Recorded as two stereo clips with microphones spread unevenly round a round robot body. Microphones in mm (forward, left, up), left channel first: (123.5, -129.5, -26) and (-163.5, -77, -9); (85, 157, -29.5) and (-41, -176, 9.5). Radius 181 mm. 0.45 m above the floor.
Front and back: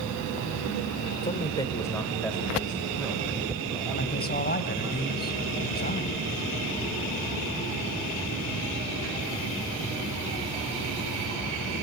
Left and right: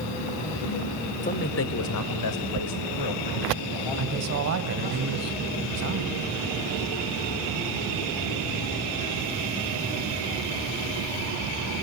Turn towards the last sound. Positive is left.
turn(degrees=-65)